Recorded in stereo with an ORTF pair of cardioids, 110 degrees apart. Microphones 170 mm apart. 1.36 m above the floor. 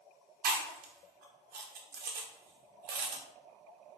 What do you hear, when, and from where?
0.4 s chewing: 70° right, 0.9 m